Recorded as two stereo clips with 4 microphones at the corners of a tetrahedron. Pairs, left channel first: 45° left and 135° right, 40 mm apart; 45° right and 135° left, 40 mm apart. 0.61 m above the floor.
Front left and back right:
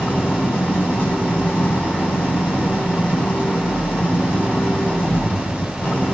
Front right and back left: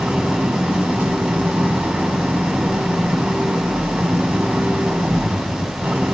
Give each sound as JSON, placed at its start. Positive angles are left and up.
{"t": 0.0, "sound": "an engine running", "azimuth_deg": 80, "distance_m": 5.0}